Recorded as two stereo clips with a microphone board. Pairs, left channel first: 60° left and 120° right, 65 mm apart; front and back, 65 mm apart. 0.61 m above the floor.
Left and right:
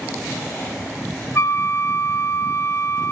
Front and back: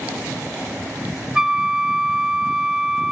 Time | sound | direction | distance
1.4 | a flute | 100° left | 0.7 m